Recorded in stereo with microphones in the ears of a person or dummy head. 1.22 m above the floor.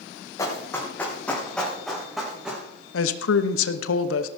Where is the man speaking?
85° left, 0.9 m.